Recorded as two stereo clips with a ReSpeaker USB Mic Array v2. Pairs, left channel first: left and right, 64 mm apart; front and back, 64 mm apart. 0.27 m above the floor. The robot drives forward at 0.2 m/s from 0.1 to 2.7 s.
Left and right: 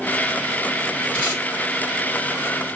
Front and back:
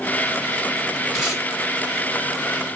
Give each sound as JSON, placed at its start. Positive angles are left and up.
{"t": 1.1, "sound": "tape being pulled", "azimuth_deg": 105, "distance_m": 1.5}